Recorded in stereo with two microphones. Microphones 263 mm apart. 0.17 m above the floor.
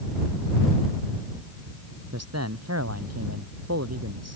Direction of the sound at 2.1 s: 70° right (ahead or behind).